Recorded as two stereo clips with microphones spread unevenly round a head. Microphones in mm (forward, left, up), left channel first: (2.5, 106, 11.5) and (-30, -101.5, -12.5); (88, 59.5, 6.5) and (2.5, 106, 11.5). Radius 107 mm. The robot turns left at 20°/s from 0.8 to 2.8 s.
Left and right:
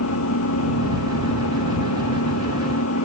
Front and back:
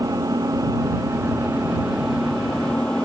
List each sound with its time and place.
0.0 s an engine running: 95° left; by 3.0 s 55° left